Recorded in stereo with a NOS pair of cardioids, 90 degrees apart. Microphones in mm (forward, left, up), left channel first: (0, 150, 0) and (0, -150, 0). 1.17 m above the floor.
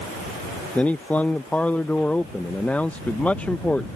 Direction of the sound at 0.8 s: 5° left.